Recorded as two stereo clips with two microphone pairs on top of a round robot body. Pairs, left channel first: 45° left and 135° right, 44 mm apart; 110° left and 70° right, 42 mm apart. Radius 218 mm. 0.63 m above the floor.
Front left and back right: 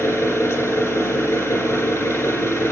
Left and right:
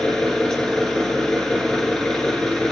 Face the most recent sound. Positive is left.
turn(degrees=30)